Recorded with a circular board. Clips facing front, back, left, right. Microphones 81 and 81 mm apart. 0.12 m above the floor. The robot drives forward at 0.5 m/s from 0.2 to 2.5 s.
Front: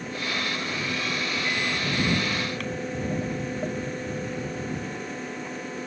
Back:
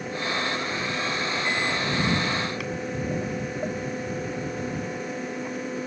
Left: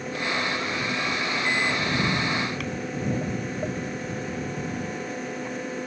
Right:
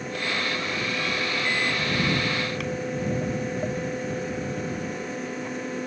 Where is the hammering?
I don't hear hammering.